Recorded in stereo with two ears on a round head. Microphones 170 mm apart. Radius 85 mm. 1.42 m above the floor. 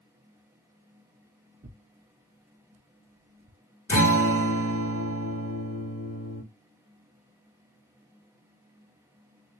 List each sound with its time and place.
1.6 s tearing paper: 40° right (ahead or behind), 0.6 m
3.9 s a guitar: 15° left (ahead or behind), 1.6 m